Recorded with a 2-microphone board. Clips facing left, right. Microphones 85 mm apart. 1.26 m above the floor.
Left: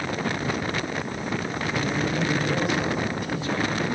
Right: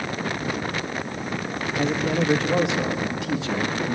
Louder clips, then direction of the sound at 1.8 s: Right 4 dB; 85° right.